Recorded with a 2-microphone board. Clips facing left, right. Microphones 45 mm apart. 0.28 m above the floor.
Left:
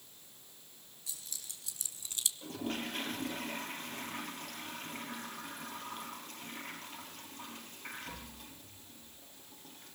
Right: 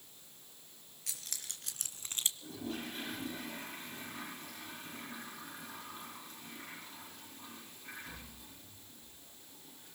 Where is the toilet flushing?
70° left (ahead or behind), 4.5 m.